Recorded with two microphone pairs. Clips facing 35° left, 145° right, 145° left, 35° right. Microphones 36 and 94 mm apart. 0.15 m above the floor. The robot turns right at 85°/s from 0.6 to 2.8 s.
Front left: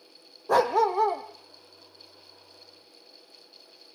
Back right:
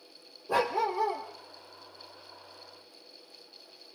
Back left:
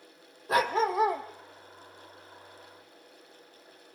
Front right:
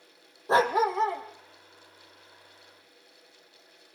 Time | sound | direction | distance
0.5 | a dog barking | 25° left | 2 m